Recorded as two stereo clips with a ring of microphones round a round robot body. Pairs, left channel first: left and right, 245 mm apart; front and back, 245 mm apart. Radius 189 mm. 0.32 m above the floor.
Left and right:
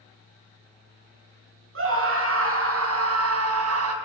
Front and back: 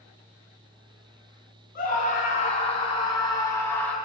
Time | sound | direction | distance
1.8 | a scream | 60° right | 4 m